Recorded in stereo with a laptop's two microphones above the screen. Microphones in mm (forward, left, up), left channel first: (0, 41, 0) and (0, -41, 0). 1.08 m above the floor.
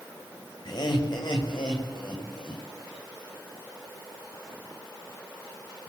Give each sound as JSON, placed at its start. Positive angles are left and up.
{"t": 0.7, "sound": "laughter", "side_deg": 55, "distance_m": 6.5}